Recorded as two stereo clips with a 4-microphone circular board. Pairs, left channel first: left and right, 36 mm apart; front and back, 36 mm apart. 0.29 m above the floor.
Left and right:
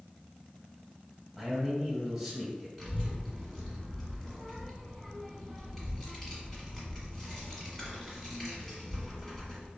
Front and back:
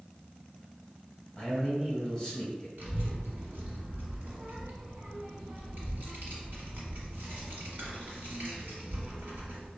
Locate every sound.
1.4 s a man speaking: 10° left, 1.1 m
2.8 s a child speaking: straight behind, 1.3 m